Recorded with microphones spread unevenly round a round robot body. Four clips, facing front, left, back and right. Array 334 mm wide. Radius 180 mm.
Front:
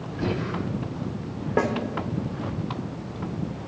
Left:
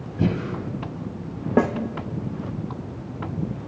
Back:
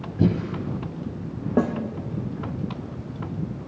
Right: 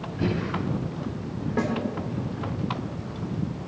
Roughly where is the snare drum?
Left.